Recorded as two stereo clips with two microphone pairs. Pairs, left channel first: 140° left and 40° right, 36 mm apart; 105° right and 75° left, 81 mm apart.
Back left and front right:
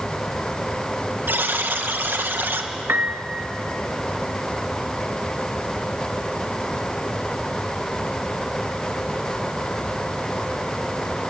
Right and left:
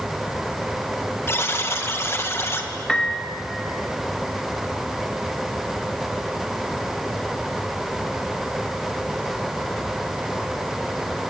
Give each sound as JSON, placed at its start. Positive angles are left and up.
{"t": 1.3, "sound": "a buzzer", "azimuth_deg": -45, "distance_m": 1.8}
{"t": 2.9, "sound": "a piano", "azimuth_deg": -20, "distance_m": 1.6}